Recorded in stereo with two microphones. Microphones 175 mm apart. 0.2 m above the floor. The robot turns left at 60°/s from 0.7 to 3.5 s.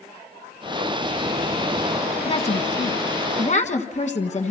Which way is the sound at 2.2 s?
135° left.